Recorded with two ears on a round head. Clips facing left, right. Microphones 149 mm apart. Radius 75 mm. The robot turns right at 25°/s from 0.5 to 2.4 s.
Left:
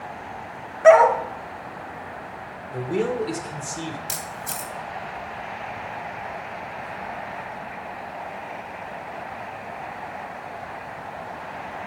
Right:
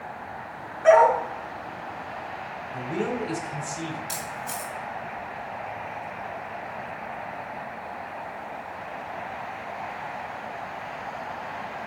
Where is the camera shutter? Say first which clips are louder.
Even; 70° left (ahead or behind), 2 m.